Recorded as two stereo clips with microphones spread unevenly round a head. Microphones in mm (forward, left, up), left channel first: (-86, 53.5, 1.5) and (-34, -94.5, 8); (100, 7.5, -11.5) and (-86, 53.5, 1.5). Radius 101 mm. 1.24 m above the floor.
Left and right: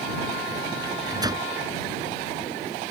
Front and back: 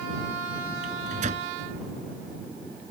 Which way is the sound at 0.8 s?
135° right.